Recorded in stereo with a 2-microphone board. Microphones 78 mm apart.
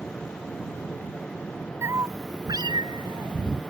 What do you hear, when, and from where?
1.8 s a cat meowing: 35° right (ahead or behind); by 3.7 s 90° right